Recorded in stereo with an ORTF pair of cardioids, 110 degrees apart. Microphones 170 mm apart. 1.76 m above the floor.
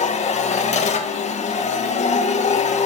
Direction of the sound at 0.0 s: 40° left.